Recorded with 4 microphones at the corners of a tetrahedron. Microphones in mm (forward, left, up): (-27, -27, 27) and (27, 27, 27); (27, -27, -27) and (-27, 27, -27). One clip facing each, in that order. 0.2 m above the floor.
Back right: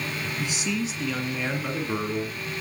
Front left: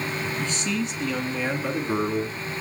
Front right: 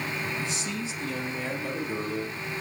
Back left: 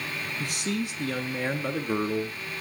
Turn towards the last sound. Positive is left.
turn(degrees=105)